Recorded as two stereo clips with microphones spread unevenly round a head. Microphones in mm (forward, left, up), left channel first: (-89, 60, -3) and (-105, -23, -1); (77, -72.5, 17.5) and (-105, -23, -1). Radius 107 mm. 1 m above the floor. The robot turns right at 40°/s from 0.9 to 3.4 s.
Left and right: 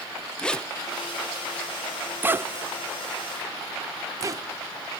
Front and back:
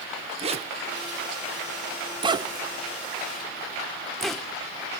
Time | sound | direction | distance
0.4 | a zipper | 150° left | 0.7 m